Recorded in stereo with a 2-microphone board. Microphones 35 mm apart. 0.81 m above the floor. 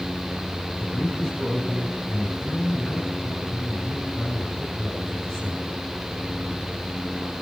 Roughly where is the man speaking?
Left.